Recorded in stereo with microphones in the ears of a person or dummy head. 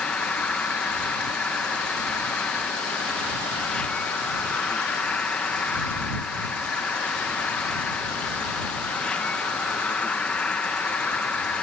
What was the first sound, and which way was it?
An insect, centre (ahead or behind).